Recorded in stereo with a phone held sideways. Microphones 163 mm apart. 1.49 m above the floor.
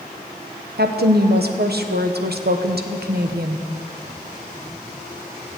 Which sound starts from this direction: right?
A woman speaking, at 0.8 s.